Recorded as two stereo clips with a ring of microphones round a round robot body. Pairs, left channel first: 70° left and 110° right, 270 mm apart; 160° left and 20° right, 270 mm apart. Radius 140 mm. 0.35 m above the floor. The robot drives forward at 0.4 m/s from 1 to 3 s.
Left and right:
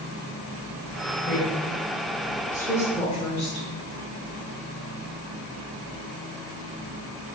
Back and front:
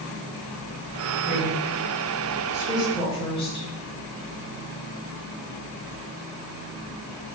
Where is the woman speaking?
45° left, 1.3 m; by 3.7 s 110° left, 1.2 m.